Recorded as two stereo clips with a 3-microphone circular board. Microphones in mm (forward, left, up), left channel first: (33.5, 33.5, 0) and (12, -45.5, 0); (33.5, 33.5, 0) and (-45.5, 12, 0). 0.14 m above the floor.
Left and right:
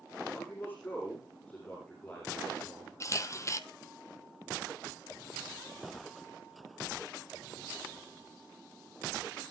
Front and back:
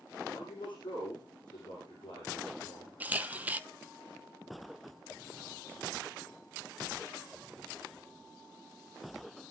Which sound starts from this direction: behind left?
A camera shutter, at 3.0 s.